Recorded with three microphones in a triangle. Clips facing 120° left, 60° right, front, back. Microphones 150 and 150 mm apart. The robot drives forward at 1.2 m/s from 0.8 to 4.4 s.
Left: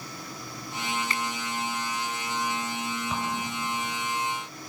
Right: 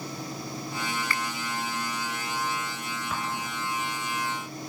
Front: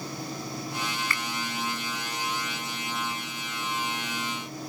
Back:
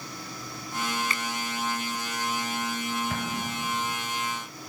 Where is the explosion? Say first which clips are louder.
Left 2 dB, back 6 dB; 160° right.